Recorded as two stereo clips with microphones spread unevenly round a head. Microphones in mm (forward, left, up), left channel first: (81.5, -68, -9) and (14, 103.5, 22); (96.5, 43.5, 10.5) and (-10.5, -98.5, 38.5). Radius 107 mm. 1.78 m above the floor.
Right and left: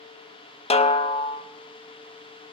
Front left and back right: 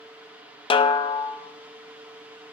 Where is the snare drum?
10° right, 0.7 m.